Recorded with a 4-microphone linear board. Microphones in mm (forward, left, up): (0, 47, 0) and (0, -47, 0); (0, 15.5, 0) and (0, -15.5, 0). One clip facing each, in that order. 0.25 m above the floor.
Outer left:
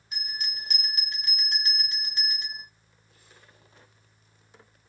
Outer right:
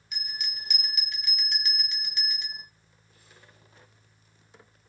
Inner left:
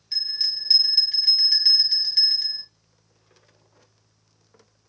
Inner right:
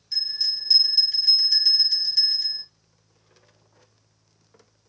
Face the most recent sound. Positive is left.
turn(degrees=35)  # may be behind; listen again after turning